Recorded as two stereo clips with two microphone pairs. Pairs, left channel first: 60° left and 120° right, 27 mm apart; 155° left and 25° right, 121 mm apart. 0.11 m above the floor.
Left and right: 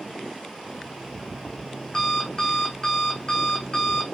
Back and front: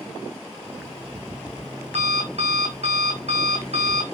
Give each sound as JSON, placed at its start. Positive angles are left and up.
{"t": 0.7, "sound": "an alarm clock", "azimuth_deg": -5, "distance_m": 4.5}